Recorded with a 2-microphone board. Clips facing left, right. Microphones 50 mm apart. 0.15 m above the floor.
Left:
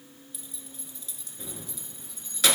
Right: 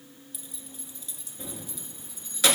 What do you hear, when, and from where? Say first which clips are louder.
0.3 s keys jangling: right 1 dB; centre (ahead or behind), 1.4 m